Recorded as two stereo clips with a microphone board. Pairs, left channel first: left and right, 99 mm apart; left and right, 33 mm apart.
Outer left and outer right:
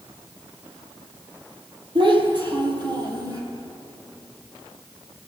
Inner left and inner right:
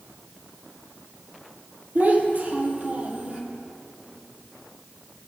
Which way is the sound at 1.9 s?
55° right (ahead or behind).